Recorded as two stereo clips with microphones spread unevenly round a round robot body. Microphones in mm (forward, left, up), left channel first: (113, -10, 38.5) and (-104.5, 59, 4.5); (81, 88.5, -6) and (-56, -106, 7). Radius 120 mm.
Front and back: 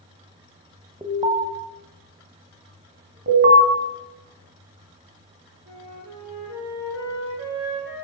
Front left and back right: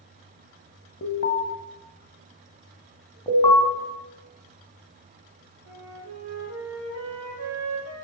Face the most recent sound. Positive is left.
turn(degrees=-150)